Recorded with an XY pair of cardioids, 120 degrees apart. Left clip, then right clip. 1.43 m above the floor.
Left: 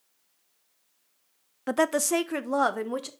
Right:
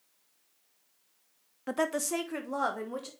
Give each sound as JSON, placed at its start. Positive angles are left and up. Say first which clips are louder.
{"t": 1.7, "sound": "a woman speaking", "louder": "left 6 dB", "azimuth_deg": 35, "distance_m": 0.5}